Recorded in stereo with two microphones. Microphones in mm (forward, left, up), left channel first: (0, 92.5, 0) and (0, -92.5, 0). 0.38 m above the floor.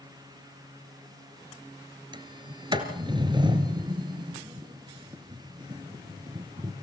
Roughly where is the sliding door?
Right.